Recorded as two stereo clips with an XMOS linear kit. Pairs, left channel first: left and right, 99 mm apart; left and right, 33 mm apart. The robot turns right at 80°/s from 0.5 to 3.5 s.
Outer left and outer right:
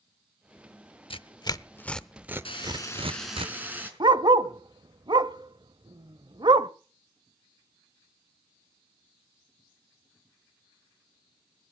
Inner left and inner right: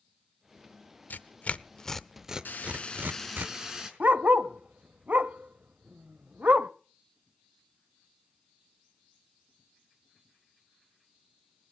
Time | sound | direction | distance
1.1 | tearing paper | 65° left (ahead or behind) | 0.7 m
2.5 | frying | 115° left | 4.5 m
4.0 | a dog barking | 50° right (ahead or behind) | 0.7 m